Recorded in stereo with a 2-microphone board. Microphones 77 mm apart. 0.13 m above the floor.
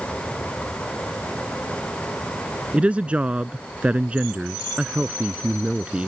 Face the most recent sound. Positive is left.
turn(degrees=-15)  # may be behind; listen again after turning